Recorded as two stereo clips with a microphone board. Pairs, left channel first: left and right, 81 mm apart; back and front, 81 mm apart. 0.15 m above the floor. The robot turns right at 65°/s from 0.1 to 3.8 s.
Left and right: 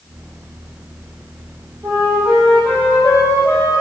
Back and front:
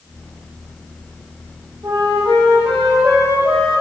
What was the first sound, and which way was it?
A flute, 40° right.